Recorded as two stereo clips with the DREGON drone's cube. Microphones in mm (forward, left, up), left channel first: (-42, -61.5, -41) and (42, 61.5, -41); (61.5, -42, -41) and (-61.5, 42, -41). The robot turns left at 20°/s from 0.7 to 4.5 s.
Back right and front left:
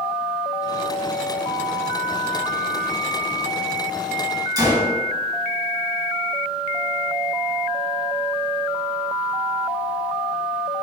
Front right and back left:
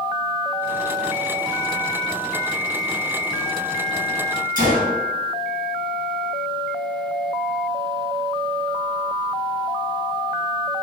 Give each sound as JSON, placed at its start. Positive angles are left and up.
{"t": 4.6, "sound": "a gunshot", "azimuth_deg": 120, "distance_m": 1.6}